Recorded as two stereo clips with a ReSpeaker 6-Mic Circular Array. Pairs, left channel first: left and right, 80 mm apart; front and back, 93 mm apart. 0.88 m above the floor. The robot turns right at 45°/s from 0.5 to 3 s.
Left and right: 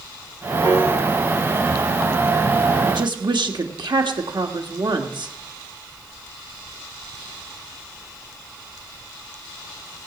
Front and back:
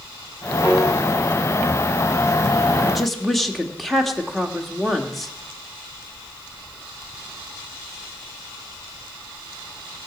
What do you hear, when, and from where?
0.6 s a piano: 120° right, 5 m; by 0.9 s 110° right, 5 m
2.9 s a woman speaking: 95° right, 1.6 m; by 5.3 s 90° right, 1.6 m